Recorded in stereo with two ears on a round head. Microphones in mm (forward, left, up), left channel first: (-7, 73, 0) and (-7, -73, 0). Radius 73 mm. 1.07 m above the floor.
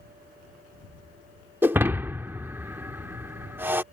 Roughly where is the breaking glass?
Centre.